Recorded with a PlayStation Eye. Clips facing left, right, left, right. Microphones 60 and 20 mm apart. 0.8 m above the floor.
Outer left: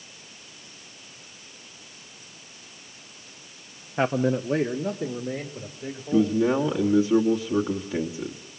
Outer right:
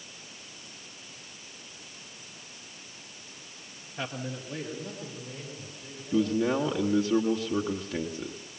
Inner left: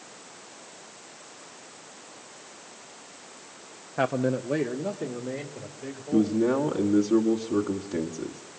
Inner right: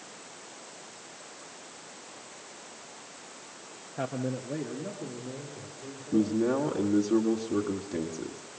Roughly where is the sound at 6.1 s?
Centre.